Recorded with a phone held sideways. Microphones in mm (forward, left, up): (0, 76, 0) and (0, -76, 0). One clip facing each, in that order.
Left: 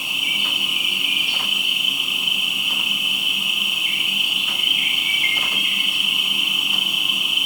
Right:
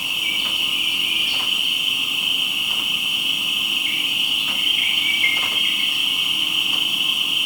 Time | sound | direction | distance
0.0 | an insect | 25° left (ahead or behind) | 3 m